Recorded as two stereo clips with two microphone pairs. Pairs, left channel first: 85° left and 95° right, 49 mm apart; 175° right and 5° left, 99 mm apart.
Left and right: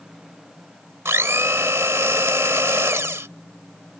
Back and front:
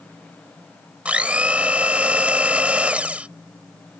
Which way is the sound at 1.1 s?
70° right.